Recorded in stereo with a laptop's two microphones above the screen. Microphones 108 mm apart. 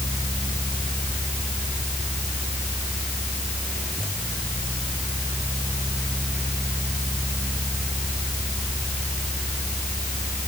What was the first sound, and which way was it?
A fan, 5° left (ahead or behind).